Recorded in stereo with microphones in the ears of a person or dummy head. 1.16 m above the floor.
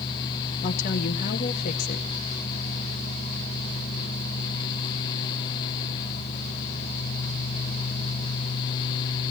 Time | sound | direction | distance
0.6 | a woman speaking | 40° left (ahead or behind) | 1.8 m